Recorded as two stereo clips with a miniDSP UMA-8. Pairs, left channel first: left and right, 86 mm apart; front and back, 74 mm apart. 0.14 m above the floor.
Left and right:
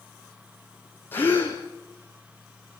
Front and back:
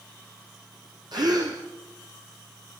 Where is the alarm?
No alarm in this recording.